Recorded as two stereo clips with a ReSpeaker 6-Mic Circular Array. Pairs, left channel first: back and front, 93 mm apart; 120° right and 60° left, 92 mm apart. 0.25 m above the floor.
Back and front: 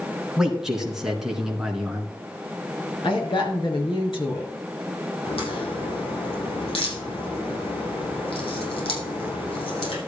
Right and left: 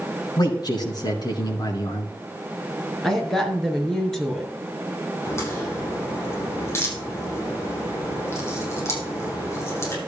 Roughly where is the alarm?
No alarm in this recording.